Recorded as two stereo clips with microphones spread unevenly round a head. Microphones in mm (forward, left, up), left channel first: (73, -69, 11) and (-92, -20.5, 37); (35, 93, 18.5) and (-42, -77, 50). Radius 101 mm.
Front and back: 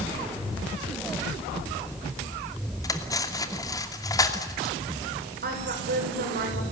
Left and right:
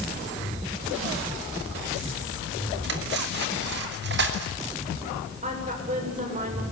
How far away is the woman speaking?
About 8 m.